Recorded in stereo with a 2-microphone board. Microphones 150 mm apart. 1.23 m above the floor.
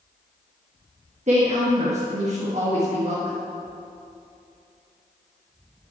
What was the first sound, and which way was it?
A woman speaking, 50° right (ahead or behind).